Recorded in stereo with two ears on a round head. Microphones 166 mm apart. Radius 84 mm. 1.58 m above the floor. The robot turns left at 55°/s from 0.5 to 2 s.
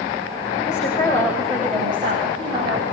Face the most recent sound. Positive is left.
turn(degrees=-30)